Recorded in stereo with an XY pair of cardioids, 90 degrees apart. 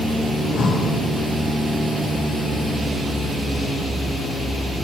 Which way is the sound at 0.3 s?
60° left.